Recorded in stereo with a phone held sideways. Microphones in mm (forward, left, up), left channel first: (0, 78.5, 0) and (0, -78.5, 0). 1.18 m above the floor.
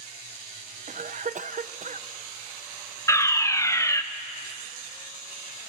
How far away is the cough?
About 0.7 m.